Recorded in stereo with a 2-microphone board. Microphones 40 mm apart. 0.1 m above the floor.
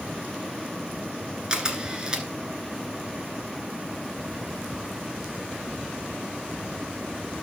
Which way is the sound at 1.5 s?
20° right (ahead or behind).